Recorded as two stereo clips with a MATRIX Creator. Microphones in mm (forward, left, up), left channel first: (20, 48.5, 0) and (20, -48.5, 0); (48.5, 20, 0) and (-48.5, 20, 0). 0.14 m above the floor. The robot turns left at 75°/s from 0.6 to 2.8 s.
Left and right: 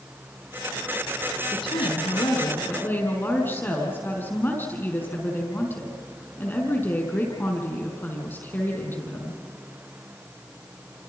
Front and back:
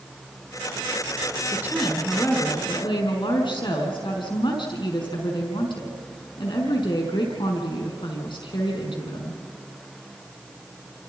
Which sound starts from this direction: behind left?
A woman speaking, at 1.5 s.